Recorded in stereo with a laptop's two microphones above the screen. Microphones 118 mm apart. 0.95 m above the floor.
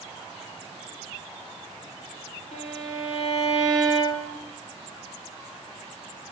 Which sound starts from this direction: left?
A violin, at 2.5 s.